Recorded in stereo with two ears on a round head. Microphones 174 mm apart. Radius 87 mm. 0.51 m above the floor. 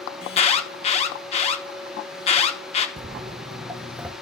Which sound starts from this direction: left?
An alarm, at 0.2 s.